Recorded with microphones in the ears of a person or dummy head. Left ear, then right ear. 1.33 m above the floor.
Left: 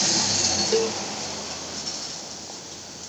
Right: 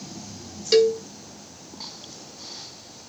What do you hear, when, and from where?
0.7 s a cowbell: 25° right (ahead or behind), 1.2 m